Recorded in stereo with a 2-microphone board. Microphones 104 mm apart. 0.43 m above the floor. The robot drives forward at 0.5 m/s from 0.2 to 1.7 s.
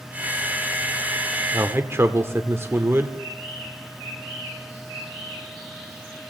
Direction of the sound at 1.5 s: 25° right (ahead or behind).